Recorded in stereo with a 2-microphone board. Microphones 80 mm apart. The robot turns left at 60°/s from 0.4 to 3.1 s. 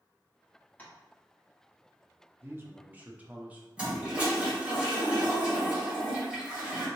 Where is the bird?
No bird in this recording.